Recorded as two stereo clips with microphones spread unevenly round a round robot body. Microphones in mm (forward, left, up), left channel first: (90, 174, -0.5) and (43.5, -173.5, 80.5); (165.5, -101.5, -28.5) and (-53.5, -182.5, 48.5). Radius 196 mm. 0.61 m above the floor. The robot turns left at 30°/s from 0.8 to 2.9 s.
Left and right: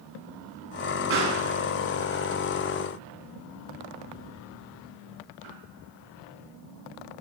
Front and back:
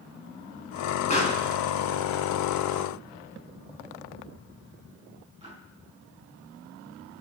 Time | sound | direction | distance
1.1 | a pop | 40° right | 4 m